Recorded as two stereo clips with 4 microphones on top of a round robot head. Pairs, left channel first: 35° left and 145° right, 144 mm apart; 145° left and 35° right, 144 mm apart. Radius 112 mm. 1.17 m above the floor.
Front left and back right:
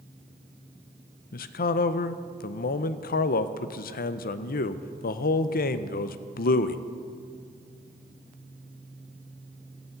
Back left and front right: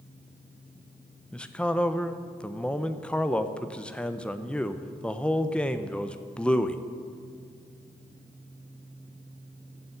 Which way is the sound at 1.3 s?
60° left.